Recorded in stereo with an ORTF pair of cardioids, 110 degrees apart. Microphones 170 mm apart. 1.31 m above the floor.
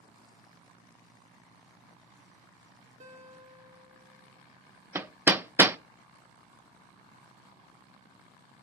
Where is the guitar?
50° right, 1.8 m.